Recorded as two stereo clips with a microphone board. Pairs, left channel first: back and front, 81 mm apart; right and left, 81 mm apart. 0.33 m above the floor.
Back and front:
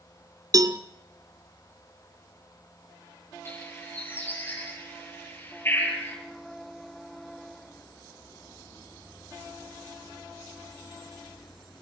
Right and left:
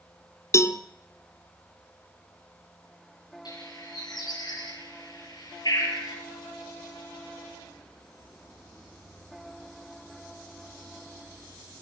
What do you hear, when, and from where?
0.5 s a cowbell: 40° right, 1.3 m
3.5 s a bird: 120° right, 9 m